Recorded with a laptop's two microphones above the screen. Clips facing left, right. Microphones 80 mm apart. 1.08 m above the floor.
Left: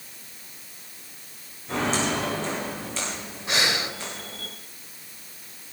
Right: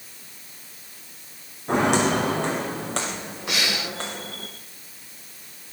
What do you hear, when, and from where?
1.7 s footsteps: 65° right (ahead or behind), 4.5 m; by 4.5 s 70° right (ahead or behind), 6.5 m
3.5 s breathing: 35° left (ahead or behind), 4 m